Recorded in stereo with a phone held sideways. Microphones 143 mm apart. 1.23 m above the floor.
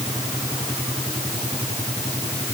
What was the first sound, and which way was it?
Only background noise.